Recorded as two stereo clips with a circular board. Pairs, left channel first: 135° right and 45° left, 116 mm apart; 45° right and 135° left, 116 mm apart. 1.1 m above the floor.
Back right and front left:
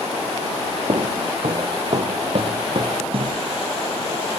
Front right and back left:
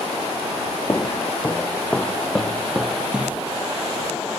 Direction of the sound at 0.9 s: 20° left.